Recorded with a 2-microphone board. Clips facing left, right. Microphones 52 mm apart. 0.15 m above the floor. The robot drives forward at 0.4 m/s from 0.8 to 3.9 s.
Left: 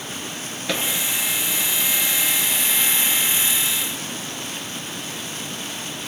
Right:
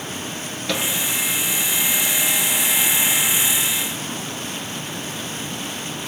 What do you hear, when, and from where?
0.7 s a microwave: 15° left (ahead or behind), 1.7 m